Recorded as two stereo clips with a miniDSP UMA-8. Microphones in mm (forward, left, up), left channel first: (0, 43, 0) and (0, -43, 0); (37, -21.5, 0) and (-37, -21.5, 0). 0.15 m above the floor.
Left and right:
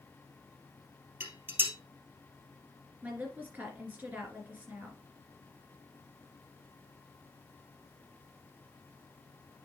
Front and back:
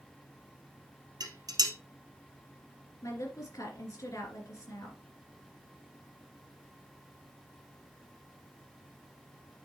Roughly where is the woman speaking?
Ahead right.